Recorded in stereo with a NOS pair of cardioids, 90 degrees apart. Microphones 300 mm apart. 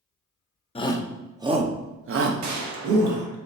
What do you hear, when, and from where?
0.8 s a shout: 20° left, 0.7 m; by 3.2 s 70° right, 1.3 m
2.4 s a gunshot: 65° right, 0.9 m